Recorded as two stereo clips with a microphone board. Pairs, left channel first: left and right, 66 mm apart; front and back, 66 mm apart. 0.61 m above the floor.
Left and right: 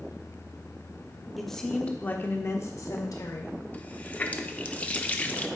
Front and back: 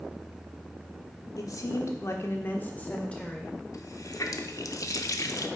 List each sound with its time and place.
1.4 s a woman speaking: straight ahead, 1.3 m; by 3.6 s 80° left, 2.0 m
3.7 s a running tap: 25° left, 0.7 m